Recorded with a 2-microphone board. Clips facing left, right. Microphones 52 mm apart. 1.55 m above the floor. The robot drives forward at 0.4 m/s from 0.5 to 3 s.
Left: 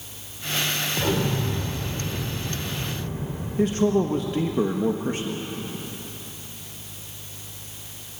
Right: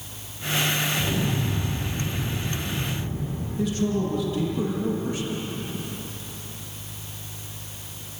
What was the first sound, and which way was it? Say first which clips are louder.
An explosion: left 2 dB; 55° left (ahead or behind).